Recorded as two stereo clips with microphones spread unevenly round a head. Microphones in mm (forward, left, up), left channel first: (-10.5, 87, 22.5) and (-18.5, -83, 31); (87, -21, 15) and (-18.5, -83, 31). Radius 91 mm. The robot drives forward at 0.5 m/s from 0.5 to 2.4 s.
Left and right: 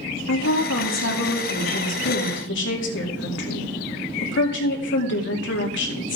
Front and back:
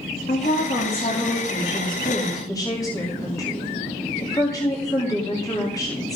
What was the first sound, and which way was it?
A woman speaking, 80° left.